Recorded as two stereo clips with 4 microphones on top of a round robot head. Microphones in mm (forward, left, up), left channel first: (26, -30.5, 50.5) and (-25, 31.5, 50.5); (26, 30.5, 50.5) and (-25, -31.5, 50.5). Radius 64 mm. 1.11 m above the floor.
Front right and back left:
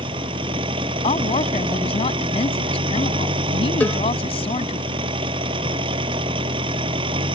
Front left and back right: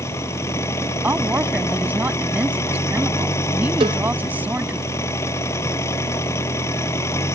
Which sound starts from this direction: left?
An engine running, at 0.0 s.